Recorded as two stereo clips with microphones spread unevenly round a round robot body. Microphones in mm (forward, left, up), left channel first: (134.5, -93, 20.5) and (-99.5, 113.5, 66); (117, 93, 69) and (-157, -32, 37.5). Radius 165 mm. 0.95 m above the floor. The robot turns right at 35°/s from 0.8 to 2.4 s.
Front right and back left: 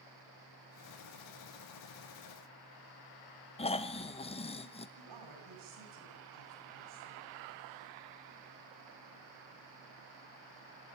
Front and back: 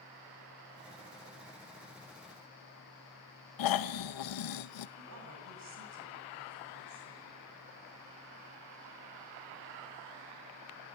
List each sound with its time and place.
3.6 s snoring: 25° left, 1.1 m
5.0 s a woman speaking: 165° left, 9.5 m